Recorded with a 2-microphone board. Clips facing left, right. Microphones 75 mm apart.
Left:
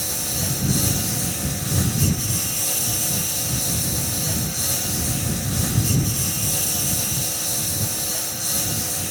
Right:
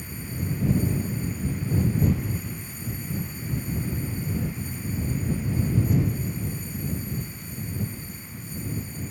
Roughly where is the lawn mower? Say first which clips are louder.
Left 4 dB; left.